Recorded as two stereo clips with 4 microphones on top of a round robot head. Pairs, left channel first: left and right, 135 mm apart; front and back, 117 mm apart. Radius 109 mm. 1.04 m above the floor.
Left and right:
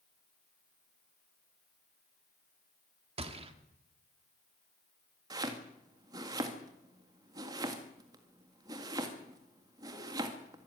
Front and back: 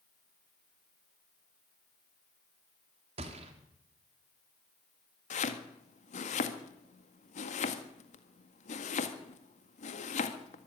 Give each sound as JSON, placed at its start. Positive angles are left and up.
{"t": 3.2, "sound": "a gunshot", "azimuth_deg": -135, "distance_m": 2.0}
{"t": 5.3, "sound": "chopping", "azimuth_deg": -25, "distance_m": 1.9}